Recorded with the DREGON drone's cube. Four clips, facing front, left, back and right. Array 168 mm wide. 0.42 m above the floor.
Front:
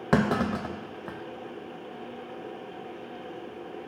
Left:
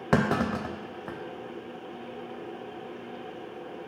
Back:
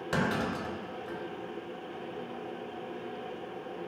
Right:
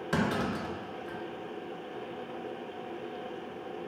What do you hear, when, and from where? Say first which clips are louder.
0.1 s a clunk: left 5 dB, front 6 dB; 45° left, 0.6 m